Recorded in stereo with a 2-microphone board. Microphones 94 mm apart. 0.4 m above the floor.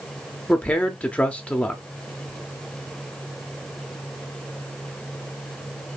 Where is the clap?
I don't hear a clap.